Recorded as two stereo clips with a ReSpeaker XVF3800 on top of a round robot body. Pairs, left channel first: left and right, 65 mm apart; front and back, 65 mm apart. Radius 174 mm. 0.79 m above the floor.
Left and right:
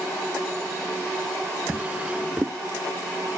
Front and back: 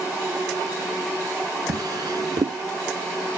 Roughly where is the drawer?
Behind.